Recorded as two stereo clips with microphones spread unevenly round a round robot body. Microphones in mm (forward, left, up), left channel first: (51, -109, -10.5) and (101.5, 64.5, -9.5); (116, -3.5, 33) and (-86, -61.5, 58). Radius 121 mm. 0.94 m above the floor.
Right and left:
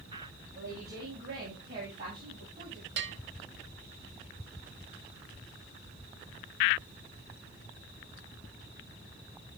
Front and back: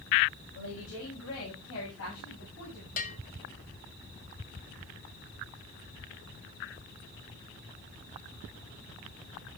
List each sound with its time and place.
0.6 s a woman speaking: 45° left, 6.5 m; by 2.9 s 40° left, 8 m
3.0 s a bell: 65° left, 1.4 m